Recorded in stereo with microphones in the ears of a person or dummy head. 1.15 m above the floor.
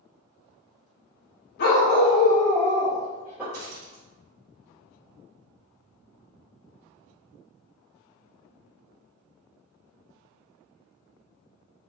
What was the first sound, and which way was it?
A dog barking, 50° left (ahead or behind).